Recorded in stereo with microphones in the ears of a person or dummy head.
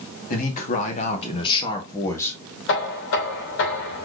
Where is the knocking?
70° left (ahead or behind), 2.5 m.